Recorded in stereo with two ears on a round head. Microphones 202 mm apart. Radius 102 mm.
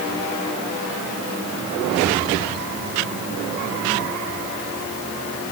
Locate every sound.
Only background noise.